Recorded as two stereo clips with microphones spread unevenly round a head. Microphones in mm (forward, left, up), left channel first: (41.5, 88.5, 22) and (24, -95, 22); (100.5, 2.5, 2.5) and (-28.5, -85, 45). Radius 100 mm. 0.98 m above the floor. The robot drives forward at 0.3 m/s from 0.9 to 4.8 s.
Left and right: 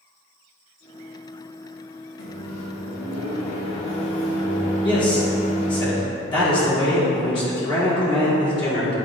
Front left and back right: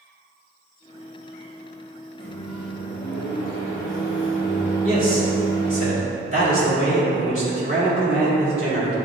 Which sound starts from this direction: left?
A microwave, at 2.2 s.